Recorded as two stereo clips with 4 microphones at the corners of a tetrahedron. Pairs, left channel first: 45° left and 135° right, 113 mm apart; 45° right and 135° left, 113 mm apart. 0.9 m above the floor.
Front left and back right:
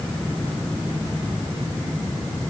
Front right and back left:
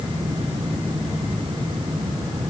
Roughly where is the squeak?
No squeak in this recording.